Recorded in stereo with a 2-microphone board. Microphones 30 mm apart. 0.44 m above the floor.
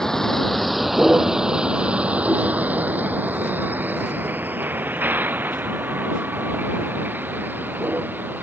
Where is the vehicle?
20° left (ahead or behind); by 8.4 s 85° right.